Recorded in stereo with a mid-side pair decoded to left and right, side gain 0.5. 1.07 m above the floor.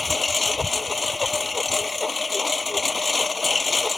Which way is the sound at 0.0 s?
25° left.